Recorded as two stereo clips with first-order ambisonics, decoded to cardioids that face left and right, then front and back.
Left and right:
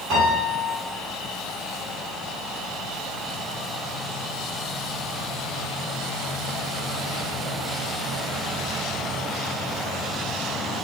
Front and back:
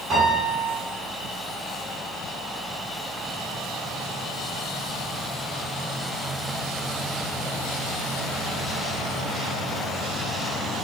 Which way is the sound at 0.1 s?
115° right.